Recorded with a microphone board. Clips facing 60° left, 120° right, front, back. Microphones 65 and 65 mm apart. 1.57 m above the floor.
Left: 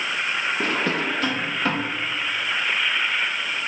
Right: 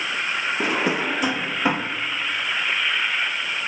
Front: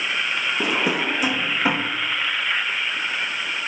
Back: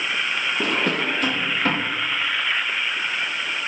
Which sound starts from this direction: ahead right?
A drawer, at 0.6 s.